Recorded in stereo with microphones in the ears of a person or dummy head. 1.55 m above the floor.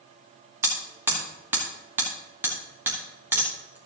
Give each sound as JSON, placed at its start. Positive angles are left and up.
{"t": 0.6, "sound": "hammering", "side_deg": -15, "distance_m": 1.2}